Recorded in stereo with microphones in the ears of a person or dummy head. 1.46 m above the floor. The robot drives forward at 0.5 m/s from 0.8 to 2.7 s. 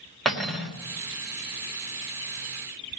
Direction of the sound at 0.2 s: Centre (ahead or behind).